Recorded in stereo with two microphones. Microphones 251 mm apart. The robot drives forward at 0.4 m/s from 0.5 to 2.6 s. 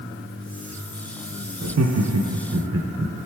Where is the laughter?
70° right (ahead or behind), 0.5 m; by 3.1 s 55° right (ahead or behind), 0.6 m.